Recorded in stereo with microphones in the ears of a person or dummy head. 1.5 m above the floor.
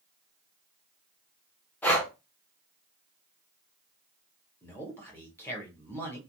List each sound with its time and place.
1.8 s breathing: 10° left (ahead or behind), 0.7 m
4.6 s a man speaking: 10° left (ahead or behind), 1.1 m